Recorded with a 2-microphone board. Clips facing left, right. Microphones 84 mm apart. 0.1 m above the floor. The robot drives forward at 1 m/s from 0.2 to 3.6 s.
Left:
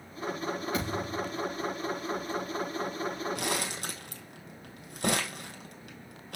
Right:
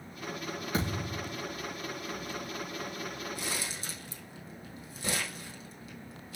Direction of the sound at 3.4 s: 65° left (ahead or behind).